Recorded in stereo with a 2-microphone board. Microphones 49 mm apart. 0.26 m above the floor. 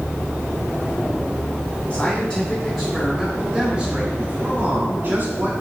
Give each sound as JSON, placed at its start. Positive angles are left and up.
{"t": 1.9, "sound": "a man speaking", "side_deg": 15, "distance_m": 3.5}